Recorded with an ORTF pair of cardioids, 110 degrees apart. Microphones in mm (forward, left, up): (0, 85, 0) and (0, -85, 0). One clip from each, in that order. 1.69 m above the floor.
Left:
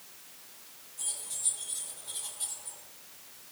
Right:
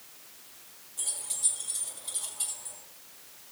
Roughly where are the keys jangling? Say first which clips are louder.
Right 4 dB; ahead right.